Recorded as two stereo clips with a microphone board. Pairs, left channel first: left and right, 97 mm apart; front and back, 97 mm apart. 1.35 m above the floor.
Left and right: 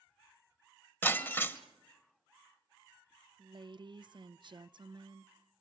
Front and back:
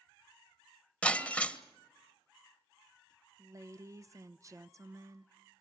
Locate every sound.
1.0 s breaking glass: 60° left, 1.2 m
3.4 s a woman speaking: 125° right, 0.7 m